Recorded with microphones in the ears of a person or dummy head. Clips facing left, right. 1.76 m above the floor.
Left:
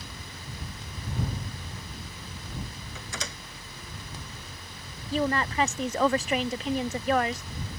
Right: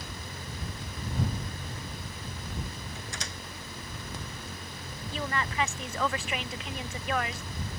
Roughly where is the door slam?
Left.